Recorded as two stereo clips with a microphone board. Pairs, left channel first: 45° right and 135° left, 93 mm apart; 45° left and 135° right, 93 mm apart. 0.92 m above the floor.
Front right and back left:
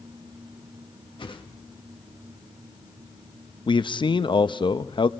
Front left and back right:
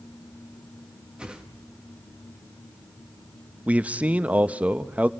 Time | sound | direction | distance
1.2 | a whoosh | 55° right | 1.6 m
3.7 | a man speaking | 60° right | 0.7 m